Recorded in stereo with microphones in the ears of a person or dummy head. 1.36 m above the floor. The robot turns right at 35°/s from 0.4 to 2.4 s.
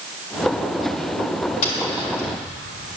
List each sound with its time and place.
1.6 s tapping: 50° left (ahead or behind), 2.5 m; by 2.3 s 70° left (ahead or behind), 2.5 m